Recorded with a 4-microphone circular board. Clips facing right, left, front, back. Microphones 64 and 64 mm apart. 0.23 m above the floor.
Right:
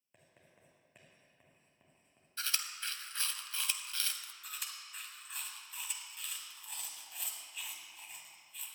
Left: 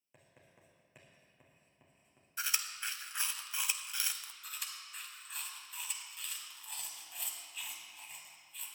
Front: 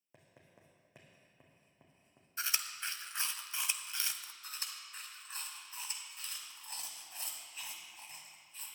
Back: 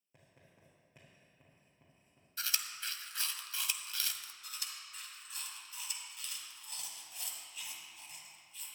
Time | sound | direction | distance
0.1 | writing | 5° left | 3 m
2.4 | chewing | 35° left | 0.6 m
4.4 | chewing | straight ahead | 1.5 m